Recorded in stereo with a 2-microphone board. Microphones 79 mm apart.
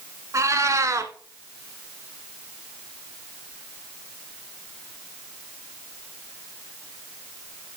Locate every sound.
0.3 s a cat meowing: 40° right (ahead or behind), 1.0 m